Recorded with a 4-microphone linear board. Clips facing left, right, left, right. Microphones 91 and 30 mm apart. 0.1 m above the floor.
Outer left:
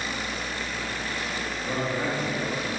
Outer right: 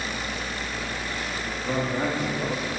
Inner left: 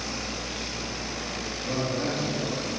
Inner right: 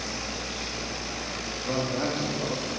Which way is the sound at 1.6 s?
40° right (ahead or behind).